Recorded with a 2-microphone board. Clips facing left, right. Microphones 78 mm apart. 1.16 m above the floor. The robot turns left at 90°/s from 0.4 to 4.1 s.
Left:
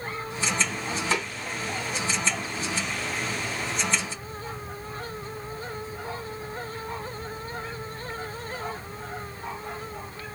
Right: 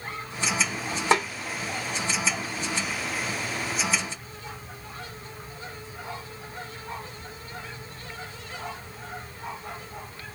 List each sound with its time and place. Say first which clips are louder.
1.1 s a snare drum: right 7 dB; 55° right (ahead or behind), 2 m; by 1.2 s 45° right (ahead or behind), 2 m